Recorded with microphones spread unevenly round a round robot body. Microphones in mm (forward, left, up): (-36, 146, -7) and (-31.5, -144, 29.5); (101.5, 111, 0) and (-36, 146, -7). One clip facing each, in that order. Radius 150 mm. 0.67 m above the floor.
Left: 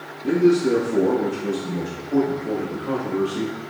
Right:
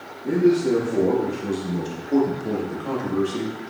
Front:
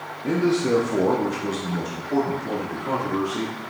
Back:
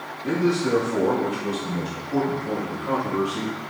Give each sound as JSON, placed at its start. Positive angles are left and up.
{"t": 0.2, "sound": "a man speaking", "azimuth_deg": 55, "distance_m": 0.9}